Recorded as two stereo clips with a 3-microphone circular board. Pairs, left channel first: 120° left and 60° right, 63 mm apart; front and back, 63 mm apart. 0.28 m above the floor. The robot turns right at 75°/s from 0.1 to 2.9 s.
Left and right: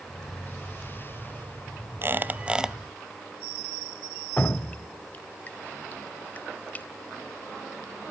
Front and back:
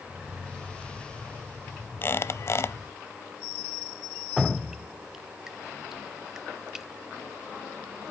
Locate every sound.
2.0 s a squeak: 30° right, 0.6 m; by 2.8 s 25° left, 0.6 m
4.4 s dripping: 110° left, 0.5 m